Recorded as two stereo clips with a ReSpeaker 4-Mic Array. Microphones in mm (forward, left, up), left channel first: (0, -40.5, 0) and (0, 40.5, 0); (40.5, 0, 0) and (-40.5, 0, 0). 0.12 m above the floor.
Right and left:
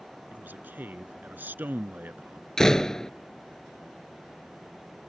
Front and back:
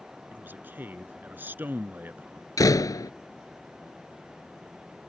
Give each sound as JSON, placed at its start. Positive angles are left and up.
{"t": 0.3, "sound": "a man speaking", "azimuth_deg": 135}
{"t": 2.6, "sound": "a door slam", "azimuth_deg": -10}